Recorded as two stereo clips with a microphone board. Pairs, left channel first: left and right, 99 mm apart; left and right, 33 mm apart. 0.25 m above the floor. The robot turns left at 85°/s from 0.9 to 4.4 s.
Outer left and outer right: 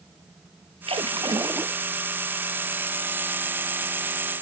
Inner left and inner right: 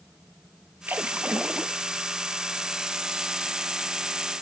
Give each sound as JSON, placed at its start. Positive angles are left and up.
{"t": 0.9, "sound": "a splash", "azimuth_deg": -95}